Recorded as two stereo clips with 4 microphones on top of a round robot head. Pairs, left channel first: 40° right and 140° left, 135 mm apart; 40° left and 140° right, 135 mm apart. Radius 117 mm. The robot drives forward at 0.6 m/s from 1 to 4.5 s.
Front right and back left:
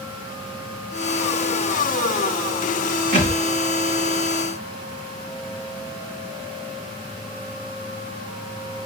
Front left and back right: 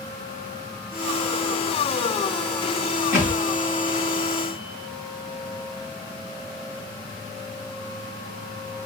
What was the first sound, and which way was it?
A thud, 140° left.